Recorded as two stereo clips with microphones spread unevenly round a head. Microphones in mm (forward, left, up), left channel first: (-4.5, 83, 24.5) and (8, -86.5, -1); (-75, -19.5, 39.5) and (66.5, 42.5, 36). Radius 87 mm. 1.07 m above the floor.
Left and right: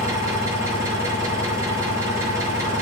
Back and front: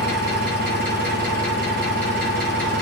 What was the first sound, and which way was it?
An engine running, 10° right.